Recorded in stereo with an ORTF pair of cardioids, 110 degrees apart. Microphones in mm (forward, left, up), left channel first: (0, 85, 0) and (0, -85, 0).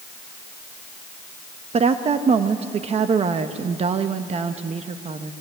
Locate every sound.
1.7 s a woman speaking: 35° right, 1.2 m